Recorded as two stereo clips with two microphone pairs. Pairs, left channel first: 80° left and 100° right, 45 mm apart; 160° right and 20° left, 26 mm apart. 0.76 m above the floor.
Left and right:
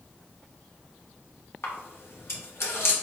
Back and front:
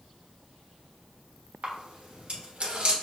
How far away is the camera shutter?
About 1.0 m.